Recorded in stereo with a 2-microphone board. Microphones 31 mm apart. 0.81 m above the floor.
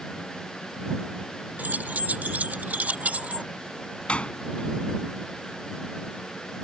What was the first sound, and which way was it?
Keys jangling, 65° right (ahead or behind).